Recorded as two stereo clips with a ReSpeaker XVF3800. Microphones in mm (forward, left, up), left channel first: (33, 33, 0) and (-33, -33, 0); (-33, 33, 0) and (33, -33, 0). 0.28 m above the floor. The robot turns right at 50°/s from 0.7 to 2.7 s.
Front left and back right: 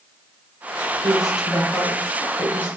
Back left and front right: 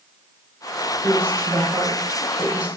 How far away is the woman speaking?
About 1.3 m.